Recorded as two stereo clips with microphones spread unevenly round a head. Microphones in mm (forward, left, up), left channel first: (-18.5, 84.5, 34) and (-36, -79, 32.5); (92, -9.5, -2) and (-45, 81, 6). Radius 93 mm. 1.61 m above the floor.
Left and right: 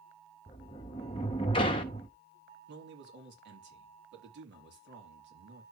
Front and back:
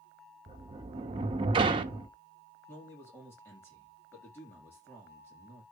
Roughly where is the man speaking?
Right.